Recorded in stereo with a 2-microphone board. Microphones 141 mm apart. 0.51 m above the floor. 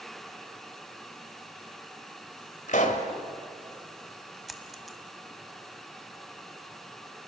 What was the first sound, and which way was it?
A pop, 65° left (ahead or behind).